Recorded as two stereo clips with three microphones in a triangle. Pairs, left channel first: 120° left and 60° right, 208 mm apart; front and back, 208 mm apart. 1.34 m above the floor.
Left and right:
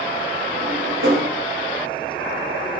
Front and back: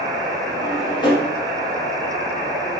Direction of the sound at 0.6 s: 70° right.